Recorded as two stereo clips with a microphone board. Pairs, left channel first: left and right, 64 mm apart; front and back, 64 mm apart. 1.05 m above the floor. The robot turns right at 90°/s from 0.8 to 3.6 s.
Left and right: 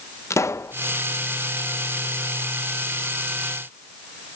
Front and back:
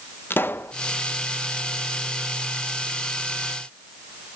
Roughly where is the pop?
Ahead left.